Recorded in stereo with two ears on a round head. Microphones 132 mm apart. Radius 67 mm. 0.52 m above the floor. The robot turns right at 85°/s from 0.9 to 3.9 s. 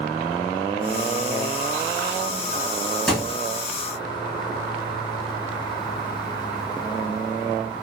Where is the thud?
5° left (ahead or behind), 2.5 m; by 3.4 s 20° right (ahead or behind), 2.5 m.